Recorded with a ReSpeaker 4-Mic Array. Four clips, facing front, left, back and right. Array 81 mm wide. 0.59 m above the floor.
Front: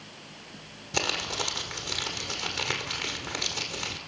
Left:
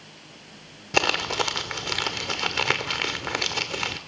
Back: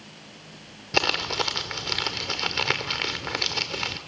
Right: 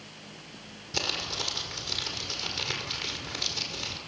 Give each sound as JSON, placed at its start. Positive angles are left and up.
{"t": 0.9, "sound": "crumpling", "azimuth_deg": 115, "distance_m": 1.5}